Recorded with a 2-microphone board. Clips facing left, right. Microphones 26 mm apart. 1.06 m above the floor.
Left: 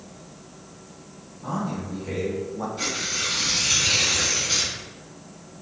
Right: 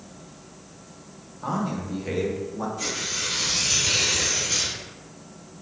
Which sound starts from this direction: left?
Tearing paper, at 2.8 s.